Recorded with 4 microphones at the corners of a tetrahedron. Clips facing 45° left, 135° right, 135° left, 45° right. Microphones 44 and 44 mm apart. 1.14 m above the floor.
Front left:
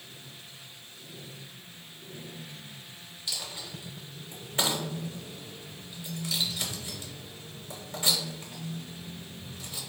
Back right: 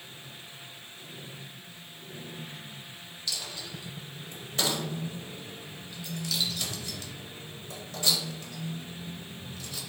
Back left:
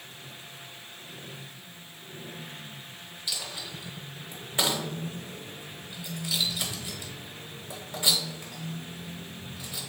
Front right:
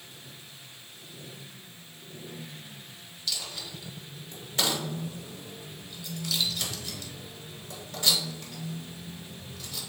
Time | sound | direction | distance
3.3 | a dropped coin | 90° left | 1.0 m